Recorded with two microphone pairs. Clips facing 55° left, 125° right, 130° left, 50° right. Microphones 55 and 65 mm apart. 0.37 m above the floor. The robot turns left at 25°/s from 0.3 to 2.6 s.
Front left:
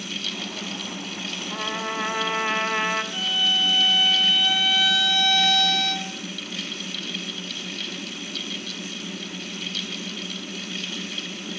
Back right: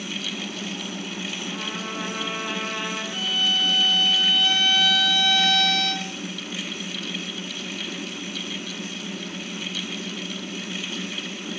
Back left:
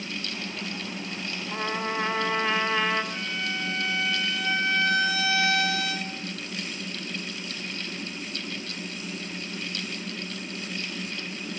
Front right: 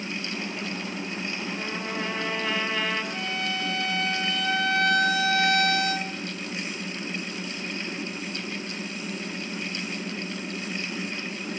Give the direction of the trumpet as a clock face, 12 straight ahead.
9 o'clock.